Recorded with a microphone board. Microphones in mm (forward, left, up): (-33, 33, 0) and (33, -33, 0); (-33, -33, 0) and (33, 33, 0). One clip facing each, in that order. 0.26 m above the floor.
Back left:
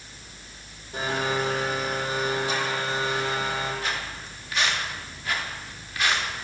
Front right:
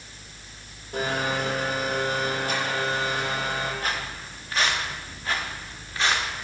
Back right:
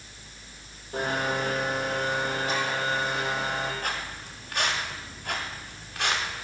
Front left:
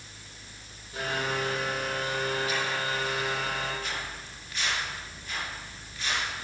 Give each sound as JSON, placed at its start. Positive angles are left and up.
{"t": 0.9, "sound": "a blender", "azimuth_deg": -80, "distance_m": 7.0}
{"t": 3.8, "sound": "footsteps", "azimuth_deg": -95, "distance_m": 4.0}